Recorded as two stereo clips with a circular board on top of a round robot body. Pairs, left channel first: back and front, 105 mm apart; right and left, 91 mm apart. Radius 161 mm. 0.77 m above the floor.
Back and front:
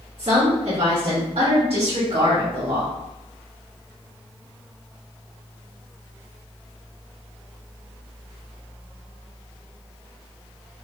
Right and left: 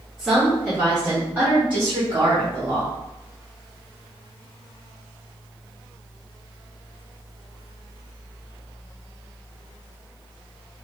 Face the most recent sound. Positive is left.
turn(degrees=30)